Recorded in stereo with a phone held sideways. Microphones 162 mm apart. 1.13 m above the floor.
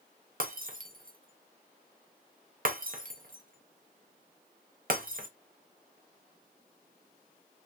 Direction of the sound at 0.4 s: 60° right (ahead or behind).